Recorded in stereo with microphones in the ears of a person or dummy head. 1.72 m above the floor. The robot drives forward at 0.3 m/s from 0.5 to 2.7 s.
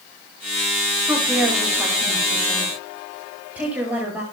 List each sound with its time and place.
1.1 s a woman speaking: 5° right (ahead or behind), 8 m